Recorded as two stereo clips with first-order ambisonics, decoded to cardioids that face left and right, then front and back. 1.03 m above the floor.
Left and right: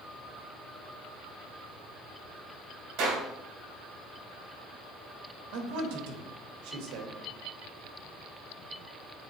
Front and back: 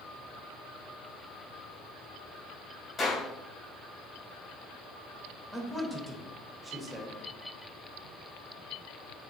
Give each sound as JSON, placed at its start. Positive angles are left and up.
{"t": 3.0, "sound": "a clap", "azimuth_deg": -70, "distance_m": 3.0}
{"t": 5.5, "sound": "a man speaking", "azimuth_deg": -95, "distance_m": 1.3}